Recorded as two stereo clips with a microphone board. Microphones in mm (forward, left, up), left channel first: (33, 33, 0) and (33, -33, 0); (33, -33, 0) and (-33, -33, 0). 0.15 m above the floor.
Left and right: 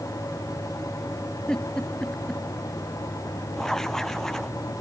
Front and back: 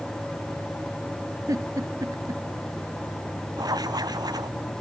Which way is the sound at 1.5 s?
165° left.